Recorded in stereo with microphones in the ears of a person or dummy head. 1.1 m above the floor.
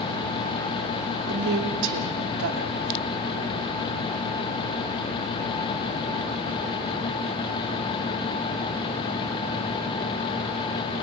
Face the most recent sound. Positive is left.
turn(degrees=-60)  # may be behind; listen again after turning